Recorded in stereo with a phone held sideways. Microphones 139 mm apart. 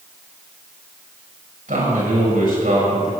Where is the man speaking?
80° right, 5.5 m.